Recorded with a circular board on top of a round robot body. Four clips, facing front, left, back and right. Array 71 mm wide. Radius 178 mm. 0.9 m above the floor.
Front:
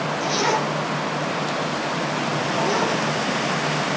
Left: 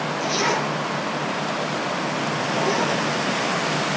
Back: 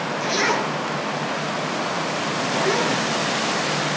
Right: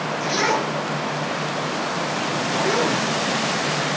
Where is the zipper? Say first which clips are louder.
Right 2 dB, even; 145° right, 5 m.